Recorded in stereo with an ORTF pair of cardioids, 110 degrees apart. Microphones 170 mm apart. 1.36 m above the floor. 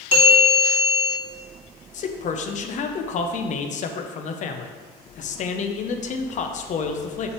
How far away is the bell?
About 3 m.